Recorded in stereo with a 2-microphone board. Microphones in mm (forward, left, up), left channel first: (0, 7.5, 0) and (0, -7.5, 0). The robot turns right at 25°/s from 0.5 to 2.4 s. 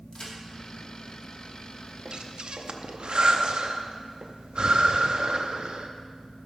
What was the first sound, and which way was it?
A crack, 70° left (ahead or behind).